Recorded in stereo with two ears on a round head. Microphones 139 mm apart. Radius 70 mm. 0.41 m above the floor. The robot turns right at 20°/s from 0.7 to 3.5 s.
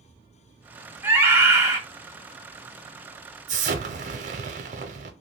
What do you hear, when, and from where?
1.0 s a scream: 10° right (ahead or behind), 1.1 m; by 1.8 s 20° right (ahead or behind), 1.1 m
3.5 s an explosion: 45° right (ahead or behind), 0.6 m